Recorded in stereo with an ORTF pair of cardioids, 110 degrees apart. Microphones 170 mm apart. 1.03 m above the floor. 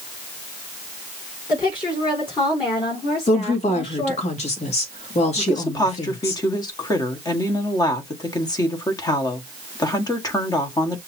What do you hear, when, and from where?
1.5 s a woman speaking: 30° left, 4.5 m; by 4.2 s 35° left, 3 m
3.3 s a woman speaking: 40° left, 2 m
5.4 s a woman speaking: 20° left, 1.6 m